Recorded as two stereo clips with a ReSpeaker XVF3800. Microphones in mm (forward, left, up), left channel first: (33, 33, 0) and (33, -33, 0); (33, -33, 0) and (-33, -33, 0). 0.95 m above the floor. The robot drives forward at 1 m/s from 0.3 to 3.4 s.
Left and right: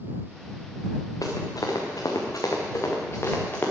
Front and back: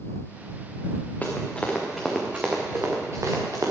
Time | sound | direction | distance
1.2 | running footsteps | 70° left | 4 m